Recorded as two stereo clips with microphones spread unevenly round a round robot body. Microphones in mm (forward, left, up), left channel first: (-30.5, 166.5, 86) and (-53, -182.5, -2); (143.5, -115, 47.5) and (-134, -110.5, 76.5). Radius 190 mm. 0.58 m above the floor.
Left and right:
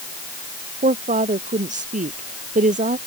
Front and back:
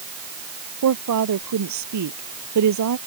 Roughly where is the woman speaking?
Behind.